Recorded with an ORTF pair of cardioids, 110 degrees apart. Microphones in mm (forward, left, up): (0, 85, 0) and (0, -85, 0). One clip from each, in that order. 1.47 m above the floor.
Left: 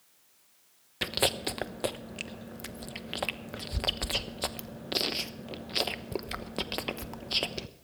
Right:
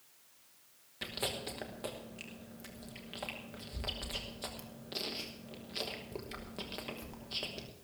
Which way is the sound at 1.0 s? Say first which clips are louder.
Left 9 dB; 55° left.